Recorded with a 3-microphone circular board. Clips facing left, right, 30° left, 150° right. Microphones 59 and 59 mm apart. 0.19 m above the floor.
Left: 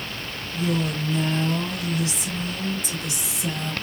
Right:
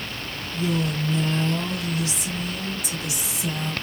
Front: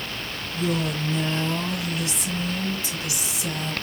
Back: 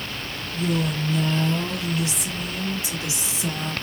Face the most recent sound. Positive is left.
turn(degrees=-165)